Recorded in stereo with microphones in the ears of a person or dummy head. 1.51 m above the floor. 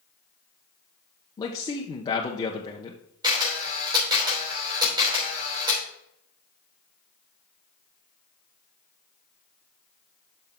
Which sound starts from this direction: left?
A man speaking, at 1.4 s.